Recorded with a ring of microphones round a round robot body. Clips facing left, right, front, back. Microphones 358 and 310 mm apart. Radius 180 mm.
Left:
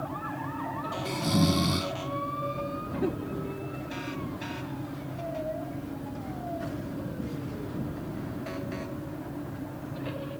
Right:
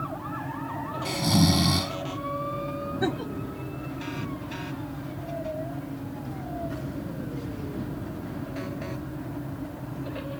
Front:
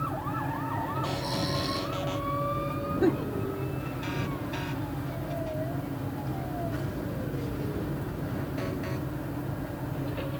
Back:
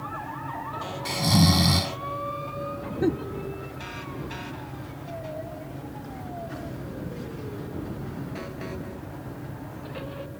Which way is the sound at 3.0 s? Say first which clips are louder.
Right 1 dB, even; 95° right.